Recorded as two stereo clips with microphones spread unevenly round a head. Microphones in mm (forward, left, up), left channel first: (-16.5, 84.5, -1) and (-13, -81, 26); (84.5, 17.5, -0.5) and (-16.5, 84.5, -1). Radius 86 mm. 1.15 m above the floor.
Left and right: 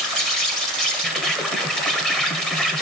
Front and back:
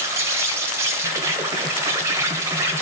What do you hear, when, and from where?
0.0 s an insect: 145° left, 1.4 m